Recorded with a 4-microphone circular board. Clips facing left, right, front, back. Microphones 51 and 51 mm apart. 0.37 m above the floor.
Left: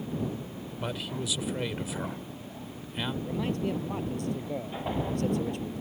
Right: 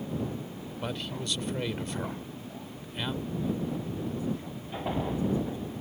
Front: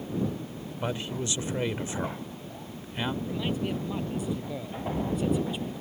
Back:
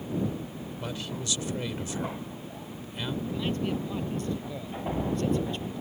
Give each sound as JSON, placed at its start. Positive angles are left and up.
{"t": 0.8, "sound": "a man speaking", "azimuth_deg": 10}
{"t": 3.2, "sound": "a man speaking", "azimuth_deg": 80}